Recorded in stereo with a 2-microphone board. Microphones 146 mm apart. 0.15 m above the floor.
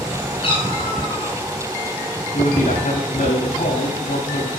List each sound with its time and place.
0.4 s a cat meowing: 40° left (ahead or behind), 9.5 m
2.3 s a man speaking: 75° left (ahead or behind), 9.5 m